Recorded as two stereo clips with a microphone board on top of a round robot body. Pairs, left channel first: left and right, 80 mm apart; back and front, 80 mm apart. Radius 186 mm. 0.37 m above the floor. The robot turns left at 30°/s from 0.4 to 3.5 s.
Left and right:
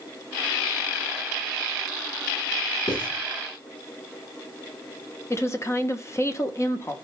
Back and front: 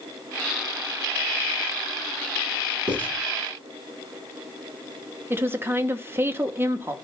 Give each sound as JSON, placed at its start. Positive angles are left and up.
{"t": 2.9, "sound": "writing", "azimuth_deg": 75, "distance_m": 6.0}
{"t": 5.3, "sound": "a woman speaking", "azimuth_deg": 50, "distance_m": 1.1}